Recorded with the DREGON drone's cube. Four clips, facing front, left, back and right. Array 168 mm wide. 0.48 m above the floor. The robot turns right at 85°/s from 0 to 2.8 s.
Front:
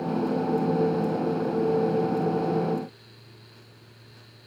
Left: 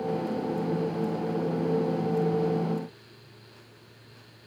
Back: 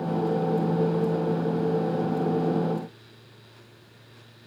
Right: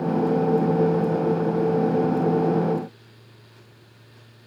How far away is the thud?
I don't hear a thud.